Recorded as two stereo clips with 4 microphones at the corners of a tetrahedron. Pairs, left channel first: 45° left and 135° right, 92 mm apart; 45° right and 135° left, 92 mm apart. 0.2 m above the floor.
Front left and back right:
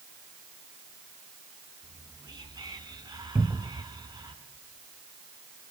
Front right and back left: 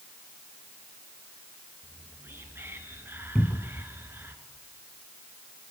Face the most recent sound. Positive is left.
turn(degrees=-105)